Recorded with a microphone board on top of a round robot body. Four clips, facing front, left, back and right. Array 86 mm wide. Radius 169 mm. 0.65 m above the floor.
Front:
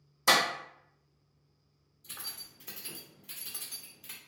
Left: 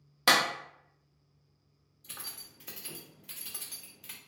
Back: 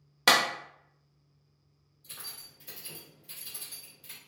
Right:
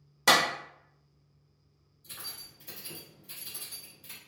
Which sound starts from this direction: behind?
A clap, at 0.3 s.